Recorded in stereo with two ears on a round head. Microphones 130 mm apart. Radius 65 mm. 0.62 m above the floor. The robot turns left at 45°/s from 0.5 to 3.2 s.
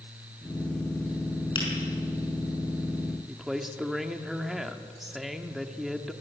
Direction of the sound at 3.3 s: Centre (ahead or behind).